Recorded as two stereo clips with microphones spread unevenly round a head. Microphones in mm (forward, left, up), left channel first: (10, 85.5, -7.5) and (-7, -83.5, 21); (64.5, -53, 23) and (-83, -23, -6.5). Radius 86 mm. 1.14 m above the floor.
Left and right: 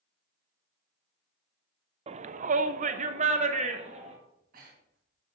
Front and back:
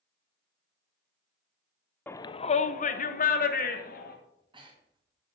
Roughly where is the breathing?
Behind right.